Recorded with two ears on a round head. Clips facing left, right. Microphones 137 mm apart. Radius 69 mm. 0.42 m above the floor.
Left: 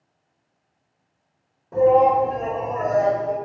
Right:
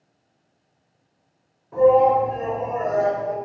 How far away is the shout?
About 1.2 m.